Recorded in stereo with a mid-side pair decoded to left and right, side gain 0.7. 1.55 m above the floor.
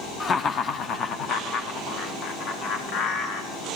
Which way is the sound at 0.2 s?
25° left.